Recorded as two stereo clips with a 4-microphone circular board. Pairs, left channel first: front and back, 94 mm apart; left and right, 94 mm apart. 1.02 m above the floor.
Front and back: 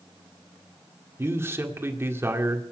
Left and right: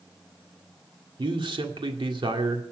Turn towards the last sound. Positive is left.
turn(degrees=-115)